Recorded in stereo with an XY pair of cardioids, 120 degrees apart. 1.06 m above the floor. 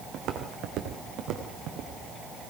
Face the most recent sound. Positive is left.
turn(degrees=-70)